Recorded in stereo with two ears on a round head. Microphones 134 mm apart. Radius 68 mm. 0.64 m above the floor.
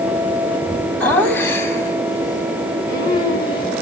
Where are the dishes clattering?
I don't hear dishes clattering.